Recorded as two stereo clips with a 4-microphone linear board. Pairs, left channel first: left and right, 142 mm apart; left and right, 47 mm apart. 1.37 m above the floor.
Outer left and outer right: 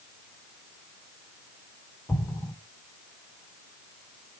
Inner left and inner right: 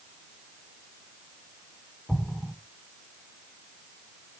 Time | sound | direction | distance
2.1 | an explosion | 10° left (ahead or behind) | 1.8 m